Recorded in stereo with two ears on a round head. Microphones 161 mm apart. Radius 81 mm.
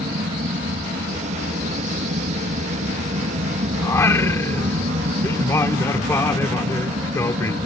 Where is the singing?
15° left (ahead or behind).